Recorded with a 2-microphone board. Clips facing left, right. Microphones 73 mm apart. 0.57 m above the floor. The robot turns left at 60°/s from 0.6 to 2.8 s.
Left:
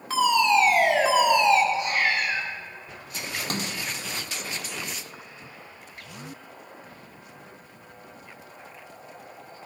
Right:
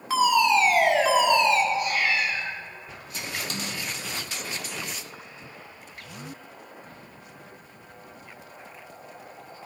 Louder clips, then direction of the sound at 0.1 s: Even; 5° right (ahead or behind).